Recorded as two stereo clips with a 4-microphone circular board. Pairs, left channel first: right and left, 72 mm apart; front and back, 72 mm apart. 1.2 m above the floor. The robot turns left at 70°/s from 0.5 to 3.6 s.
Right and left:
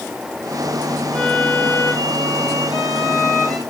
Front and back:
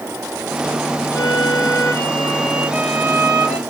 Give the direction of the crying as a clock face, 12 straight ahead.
I don't hear crying.